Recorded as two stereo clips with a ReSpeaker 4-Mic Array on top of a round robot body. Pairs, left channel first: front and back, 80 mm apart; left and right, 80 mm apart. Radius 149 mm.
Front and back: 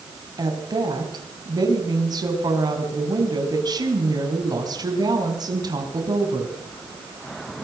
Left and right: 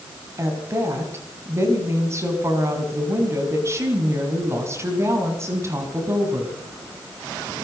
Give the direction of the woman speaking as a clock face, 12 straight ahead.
5 o'clock.